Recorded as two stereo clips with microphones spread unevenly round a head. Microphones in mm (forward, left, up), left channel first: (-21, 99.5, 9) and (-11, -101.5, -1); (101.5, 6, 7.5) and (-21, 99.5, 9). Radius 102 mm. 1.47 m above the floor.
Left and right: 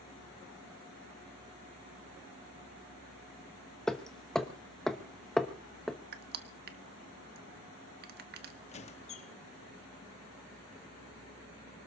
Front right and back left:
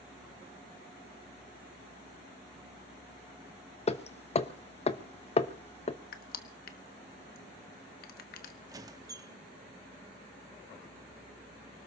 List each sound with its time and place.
3.9 s hammering: 5° left, 1.1 m
6.1 s crushing: 50° right, 1.2 m
8.7 s a squeak: 95° left, 1.0 m